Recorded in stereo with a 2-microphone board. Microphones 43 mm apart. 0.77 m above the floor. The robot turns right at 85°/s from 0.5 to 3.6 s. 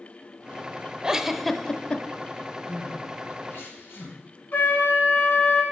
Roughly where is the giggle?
Centre.